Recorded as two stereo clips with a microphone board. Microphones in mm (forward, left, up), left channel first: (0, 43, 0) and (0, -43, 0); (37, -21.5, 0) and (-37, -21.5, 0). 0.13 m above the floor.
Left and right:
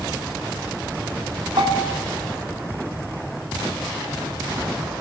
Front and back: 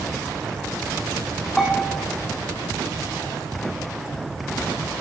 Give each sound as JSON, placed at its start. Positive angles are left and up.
{"t": 1.6, "sound": "a bell", "azimuth_deg": -85, "distance_m": 7.5}